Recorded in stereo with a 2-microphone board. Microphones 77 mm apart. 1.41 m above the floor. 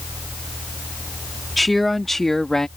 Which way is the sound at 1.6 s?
Centre (ahead or behind).